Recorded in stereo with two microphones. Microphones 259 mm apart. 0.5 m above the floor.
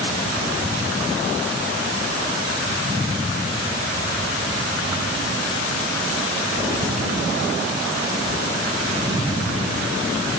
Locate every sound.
Only background noise.